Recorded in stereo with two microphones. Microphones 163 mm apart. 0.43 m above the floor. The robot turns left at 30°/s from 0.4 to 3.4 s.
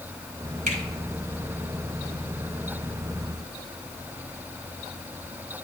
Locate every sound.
0.7 s a finger snap: 55° right (ahead or behind), 3 m; by 0.8 s 50° right (ahead or behind), 3 m